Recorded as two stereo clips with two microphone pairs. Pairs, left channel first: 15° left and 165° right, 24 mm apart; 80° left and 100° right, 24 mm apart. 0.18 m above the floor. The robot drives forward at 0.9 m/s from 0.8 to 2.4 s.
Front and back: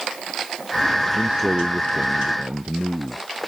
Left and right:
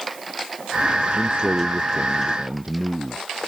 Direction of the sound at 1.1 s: 125° right.